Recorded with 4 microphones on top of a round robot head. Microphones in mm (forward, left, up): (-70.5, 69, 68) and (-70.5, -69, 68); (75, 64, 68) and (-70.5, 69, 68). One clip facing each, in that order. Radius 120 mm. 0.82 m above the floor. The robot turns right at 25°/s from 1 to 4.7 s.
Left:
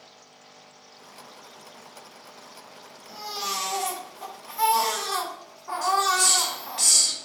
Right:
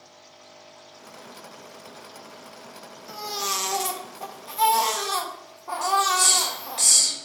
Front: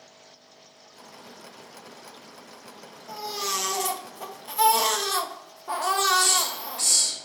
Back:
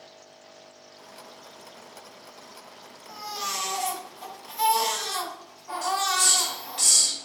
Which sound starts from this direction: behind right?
A hiss, at 5.8 s.